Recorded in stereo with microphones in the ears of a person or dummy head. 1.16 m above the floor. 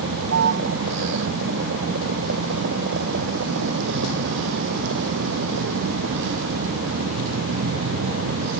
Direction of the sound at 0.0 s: 70° right (ahead or behind).